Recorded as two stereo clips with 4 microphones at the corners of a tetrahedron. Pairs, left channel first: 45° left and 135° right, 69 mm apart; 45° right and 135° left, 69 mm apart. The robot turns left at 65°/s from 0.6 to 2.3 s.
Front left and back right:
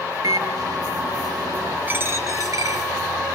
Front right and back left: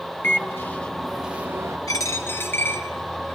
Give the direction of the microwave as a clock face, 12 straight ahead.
3 o'clock.